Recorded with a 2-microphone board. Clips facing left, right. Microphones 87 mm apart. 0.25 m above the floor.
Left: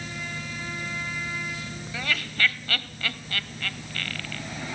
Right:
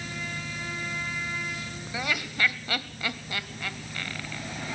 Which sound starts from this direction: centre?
Laughter, at 1.9 s.